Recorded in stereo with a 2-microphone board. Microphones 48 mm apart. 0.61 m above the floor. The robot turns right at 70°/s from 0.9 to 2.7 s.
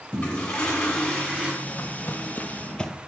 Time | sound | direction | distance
0.1 | a toilet flushing | 160° left | 1.9 m
1.6 | footsteps | 35° left (ahead or behind) | 1.1 m